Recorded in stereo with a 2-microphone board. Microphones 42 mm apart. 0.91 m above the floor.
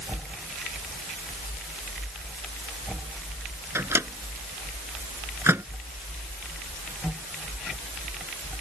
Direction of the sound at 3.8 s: 80° right.